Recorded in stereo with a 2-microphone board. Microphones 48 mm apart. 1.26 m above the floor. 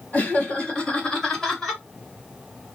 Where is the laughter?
30° left (ahead or behind), 1.8 m; by 1.8 s centre (ahead or behind), 1.3 m.